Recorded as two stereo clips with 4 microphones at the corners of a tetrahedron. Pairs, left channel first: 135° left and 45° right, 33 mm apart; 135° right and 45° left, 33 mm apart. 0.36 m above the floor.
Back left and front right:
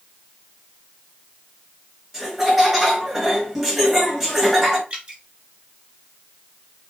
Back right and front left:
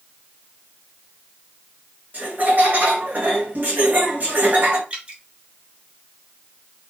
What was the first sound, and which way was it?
Laughter, 35° left.